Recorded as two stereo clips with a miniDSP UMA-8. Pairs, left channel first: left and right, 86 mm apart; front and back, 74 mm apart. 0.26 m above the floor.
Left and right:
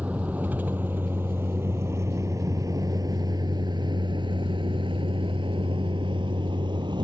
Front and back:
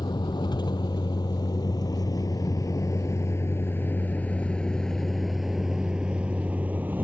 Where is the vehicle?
15° right; by 7.0 s 115° right.